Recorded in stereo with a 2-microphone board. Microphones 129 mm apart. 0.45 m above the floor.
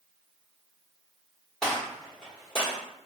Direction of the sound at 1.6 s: 5° left (ahead or behind).